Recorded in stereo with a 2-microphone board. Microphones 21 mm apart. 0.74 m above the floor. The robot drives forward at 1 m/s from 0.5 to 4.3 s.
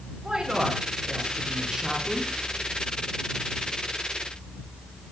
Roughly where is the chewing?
I don't hear chewing.